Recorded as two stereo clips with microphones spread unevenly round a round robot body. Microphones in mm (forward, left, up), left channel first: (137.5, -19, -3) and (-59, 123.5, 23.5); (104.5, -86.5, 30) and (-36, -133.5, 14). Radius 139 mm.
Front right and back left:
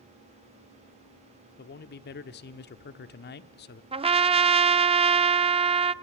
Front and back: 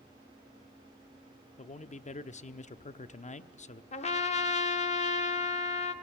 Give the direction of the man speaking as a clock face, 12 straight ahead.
12 o'clock.